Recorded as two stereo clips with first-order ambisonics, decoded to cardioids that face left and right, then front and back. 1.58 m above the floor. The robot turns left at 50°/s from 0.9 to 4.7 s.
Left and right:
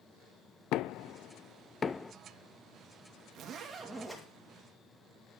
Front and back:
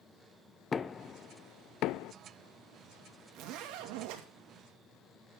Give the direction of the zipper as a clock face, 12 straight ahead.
5 o'clock.